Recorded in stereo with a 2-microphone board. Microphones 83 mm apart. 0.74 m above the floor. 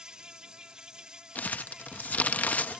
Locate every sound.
0.0 s an insect: 10° right (ahead or behind)
1.4 s crumpling: 20° left (ahead or behind)